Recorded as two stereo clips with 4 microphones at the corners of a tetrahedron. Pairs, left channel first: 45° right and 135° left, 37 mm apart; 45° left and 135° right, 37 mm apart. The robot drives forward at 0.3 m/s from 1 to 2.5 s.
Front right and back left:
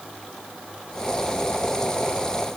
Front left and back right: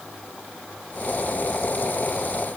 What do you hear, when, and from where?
Only background noise.